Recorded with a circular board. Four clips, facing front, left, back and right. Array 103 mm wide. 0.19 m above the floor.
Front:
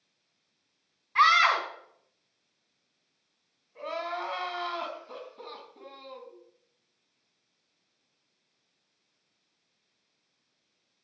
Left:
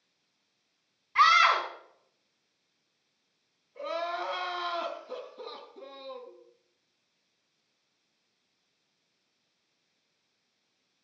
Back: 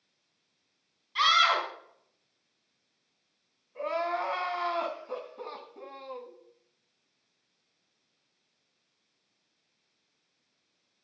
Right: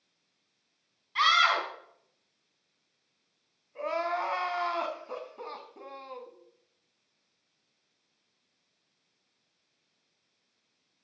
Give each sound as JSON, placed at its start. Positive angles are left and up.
{"t": 1.1, "sound": "a scream", "azimuth_deg": 25, "distance_m": 1.5}
{"t": 3.8, "sound": "crying", "azimuth_deg": -115, "distance_m": 1.5}